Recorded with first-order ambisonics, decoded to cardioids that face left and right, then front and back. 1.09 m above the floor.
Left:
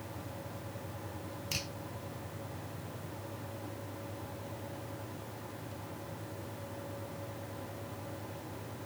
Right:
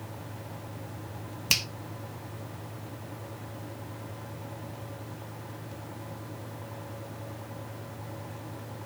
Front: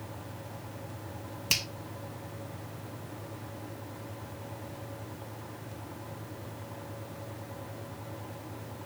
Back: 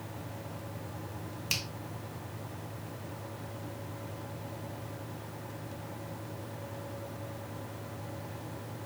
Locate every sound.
1.5 s a finger snap: 75° right, 1.3 m